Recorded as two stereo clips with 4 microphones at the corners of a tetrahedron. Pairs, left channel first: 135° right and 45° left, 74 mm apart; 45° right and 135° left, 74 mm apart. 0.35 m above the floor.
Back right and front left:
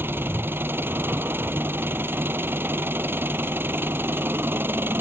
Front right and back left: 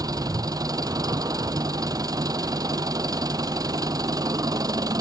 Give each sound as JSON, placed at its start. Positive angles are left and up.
{"t": 0.0, "sound": "an engine running", "azimuth_deg": 105}